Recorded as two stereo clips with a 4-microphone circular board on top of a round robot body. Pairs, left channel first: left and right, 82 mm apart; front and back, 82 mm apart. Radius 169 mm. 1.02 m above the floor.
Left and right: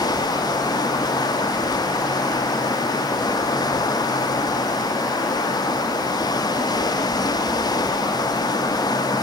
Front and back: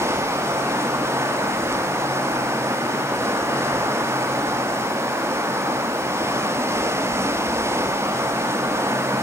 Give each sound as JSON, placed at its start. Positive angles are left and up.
{"t": 0.0, "sound": "running water", "azimuth_deg": 125, "distance_m": 1.7}